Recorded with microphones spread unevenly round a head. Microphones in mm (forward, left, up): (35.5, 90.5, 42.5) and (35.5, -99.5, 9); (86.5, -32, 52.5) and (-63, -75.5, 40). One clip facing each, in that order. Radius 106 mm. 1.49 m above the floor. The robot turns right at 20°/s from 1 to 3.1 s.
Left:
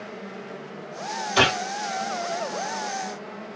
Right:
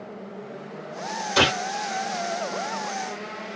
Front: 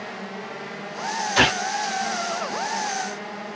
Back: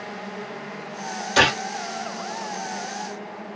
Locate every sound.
1.4 s a gunshot: 135° right, 1.6 m; by 1.6 s 130° right, 1.6 m